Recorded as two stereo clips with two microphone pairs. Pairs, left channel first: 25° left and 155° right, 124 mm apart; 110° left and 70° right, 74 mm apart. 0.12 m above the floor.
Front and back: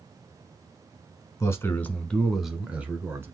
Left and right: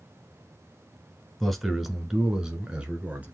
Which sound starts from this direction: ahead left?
A man speaking, at 1.4 s.